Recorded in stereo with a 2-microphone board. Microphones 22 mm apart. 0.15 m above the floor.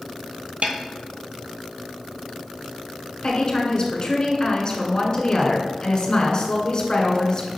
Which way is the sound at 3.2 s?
40° left (ahead or behind).